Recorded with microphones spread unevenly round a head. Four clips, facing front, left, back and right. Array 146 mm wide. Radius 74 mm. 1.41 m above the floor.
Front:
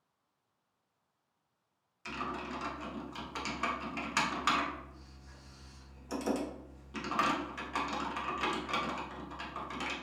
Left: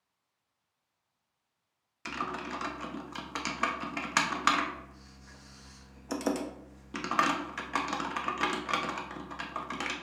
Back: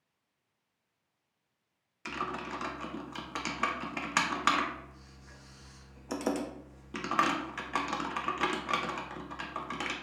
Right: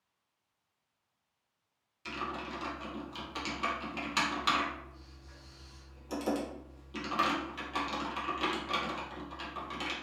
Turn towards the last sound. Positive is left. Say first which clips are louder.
# left 3 dB, back 2 dB
turn(degrees=140)